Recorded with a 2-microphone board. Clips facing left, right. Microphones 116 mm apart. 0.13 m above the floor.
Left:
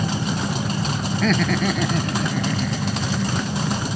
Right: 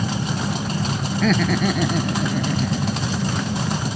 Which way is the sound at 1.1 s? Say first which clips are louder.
Right 1 dB; 5° right (ahead or behind).